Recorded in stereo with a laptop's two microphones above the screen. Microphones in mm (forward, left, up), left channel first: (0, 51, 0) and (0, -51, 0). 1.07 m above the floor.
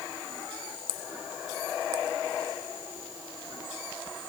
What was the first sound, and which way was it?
Only background noise.